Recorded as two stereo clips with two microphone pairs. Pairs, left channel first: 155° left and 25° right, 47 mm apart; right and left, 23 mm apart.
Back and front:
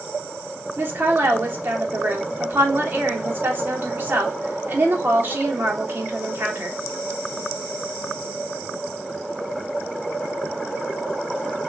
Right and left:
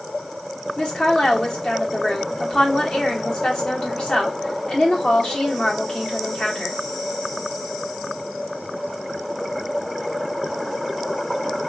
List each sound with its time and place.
0.8 s a woman speaking: 65° right, 1.7 m